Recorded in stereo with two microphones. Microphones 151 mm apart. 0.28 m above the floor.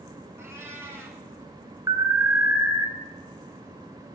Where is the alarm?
20° right (ahead or behind), 1.0 m.